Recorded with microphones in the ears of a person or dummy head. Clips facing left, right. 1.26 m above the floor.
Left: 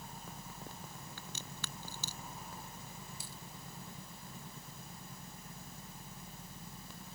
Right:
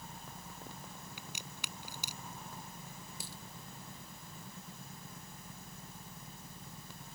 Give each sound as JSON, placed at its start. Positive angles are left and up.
{"t": 1.2, "sound": "a crack", "side_deg": -15}
{"t": 3.2, "sound": "a dropped coin", "side_deg": -60}